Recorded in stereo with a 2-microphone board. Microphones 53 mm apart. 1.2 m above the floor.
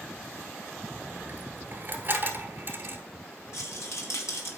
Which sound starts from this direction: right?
A dropped coin, at 0.9 s.